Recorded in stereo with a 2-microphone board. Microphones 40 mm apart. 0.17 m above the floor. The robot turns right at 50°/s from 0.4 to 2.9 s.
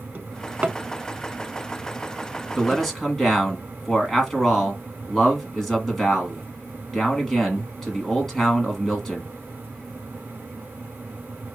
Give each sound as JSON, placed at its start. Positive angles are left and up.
{"t": 0.1, "sound": "a drawer", "side_deg": -45, "distance_m": 0.6}
{"t": 2.6, "sound": "a man speaking", "side_deg": 0, "distance_m": 1.6}